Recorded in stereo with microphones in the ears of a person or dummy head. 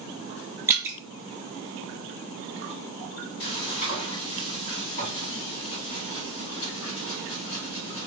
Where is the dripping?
15° right (ahead or behind), 0.5 m.